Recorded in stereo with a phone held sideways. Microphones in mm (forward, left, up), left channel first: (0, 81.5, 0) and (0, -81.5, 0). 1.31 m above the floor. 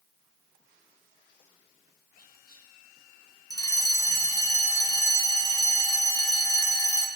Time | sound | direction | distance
2.2 | whispering | 70° left (ahead or behind) | 5.5 m
3.5 | a fire alarm | 20° left (ahead or behind) | 2.5 m